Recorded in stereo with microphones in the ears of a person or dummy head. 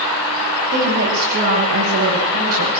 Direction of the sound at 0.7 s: 65° right (ahead or behind).